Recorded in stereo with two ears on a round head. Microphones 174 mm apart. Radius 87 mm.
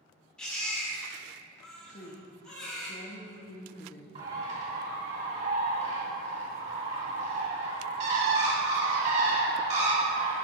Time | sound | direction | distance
0.4 | a baby crying | 5° left (ahead or behind) | 1.5 m
1.9 | a woman speaking | 40° left (ahead or behind) | 0.6 m
4.2 | a bird | 40° right (ahead or behind) | 2 m